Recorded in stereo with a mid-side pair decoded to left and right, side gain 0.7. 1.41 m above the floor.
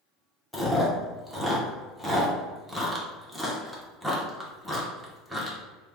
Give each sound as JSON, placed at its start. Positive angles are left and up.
{"t": 0.5, "sound": "chewing", "azimuth_deg": 0, "distance_m": 1.0}